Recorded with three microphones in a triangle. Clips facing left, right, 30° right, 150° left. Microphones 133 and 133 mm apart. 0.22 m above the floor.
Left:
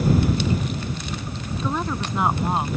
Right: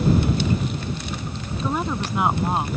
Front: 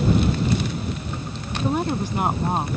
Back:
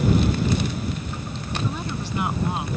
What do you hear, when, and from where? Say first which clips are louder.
1.6 s a woman speaking: right 1 dB, front 9 dB; 10° right; by 2.7 s straight ahead